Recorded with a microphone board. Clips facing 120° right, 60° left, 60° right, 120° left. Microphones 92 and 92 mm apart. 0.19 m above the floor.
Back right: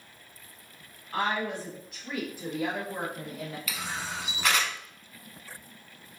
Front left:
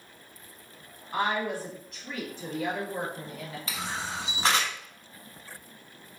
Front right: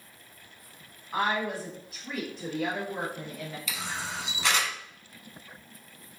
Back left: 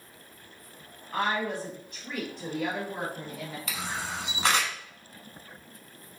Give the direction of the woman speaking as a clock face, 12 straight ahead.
12 o'clock.